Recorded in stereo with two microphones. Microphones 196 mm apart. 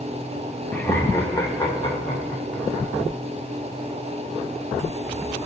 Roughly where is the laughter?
Centre.